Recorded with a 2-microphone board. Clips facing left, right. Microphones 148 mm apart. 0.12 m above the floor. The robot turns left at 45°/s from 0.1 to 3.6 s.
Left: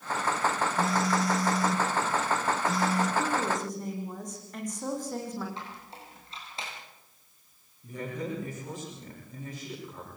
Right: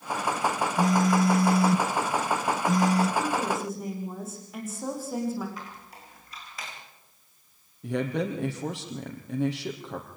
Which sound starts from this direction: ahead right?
A phone buzzing, at 0.8 s.